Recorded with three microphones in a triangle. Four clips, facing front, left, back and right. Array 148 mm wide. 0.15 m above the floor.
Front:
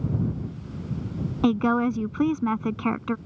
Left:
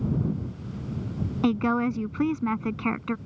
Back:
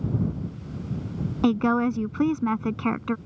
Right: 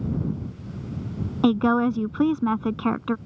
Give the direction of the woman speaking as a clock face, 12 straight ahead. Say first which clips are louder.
Right 4 dB, even; 3 o'clock.